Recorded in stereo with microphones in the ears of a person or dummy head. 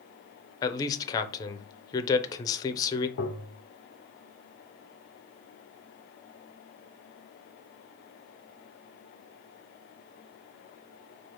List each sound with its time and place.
0.6 s a man speaking: 20° left (ahead or behind), 0.6 m
3.2 s tapping: 50° left (ahead or behind), 0.7 m